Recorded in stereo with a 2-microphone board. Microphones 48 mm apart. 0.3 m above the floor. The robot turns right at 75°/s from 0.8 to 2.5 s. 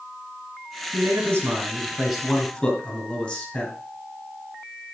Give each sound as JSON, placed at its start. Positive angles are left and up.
{"t": 0.9, "sound": "a man speaking", "azimuth_deg": -90, "distance_m": 3.5}